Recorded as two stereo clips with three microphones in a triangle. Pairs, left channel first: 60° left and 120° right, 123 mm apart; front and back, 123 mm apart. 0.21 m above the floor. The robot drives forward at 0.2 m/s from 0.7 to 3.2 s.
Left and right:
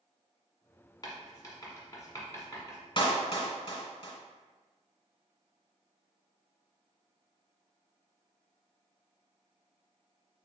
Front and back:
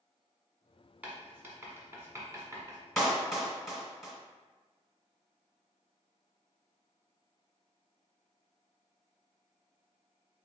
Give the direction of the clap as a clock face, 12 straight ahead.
9 o'clock.